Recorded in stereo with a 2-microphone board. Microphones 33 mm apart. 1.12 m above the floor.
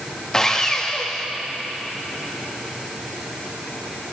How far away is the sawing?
About 0.9 m.